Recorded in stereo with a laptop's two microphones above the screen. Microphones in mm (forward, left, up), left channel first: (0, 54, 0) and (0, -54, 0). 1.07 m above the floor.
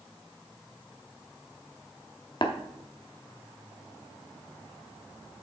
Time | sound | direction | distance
2.4 | tapping | 50° left (ahead or behind) | 0.7 m